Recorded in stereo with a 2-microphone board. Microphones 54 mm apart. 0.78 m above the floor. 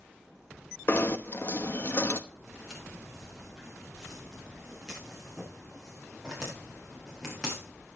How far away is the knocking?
About 1.0 m.